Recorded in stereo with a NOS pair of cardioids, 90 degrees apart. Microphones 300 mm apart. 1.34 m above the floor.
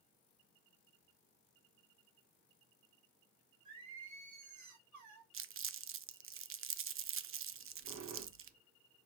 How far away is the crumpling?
About 0.7 m.